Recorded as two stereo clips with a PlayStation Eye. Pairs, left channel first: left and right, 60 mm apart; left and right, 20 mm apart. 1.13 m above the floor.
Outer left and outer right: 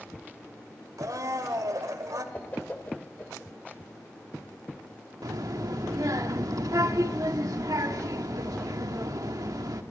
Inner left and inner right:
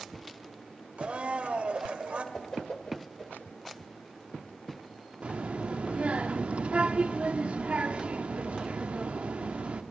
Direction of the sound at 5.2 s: 80° right.